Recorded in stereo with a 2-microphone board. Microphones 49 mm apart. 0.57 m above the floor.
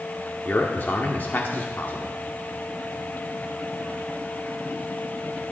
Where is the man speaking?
45° left (ahead or behind), 1.5 m.